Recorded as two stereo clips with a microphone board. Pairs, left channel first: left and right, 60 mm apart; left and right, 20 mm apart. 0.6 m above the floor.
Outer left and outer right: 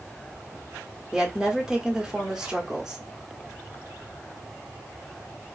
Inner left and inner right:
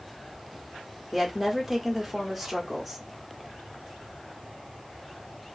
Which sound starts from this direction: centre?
A woman speaking, at 1.1 s.